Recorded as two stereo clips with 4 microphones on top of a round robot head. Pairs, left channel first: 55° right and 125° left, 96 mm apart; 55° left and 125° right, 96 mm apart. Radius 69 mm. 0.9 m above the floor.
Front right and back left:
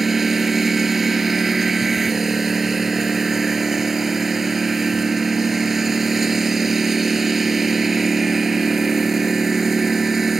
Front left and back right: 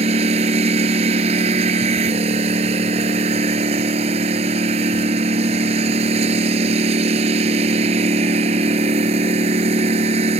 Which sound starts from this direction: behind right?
A lawn mower, at 0.0 s.